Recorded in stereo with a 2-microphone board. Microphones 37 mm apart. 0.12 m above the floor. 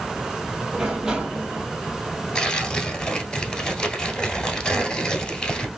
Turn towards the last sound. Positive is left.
turn(degrees=25)  # may be behind; listen again after turning